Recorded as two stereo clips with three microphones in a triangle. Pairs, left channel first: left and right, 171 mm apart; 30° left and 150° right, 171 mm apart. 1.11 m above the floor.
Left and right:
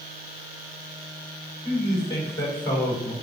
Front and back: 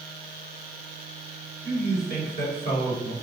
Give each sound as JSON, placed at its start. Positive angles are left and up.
{"t": 1.6, "sound": "a man speaking", "azimuth_deg": 25, "distance_m": 5.0}